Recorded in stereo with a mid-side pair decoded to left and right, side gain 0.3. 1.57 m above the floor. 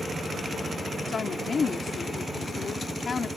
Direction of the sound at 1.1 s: 65° left.